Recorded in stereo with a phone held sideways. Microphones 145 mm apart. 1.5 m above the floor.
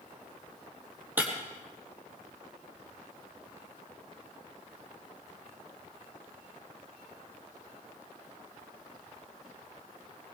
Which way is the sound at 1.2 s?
15° right (ahead or behind).